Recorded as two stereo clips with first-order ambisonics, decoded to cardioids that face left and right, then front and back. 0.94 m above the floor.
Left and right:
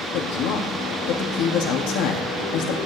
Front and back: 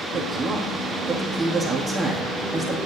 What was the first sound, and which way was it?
A woman speaking, 100° left.